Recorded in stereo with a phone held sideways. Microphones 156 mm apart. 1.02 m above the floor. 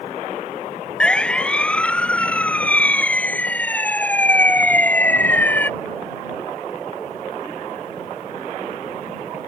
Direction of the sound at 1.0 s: 5° left (ahead or behind).